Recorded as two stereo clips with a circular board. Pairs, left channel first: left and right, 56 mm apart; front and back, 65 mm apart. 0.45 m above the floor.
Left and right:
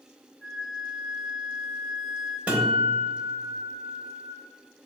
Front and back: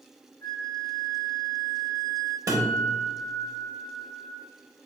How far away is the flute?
About 1.0 m.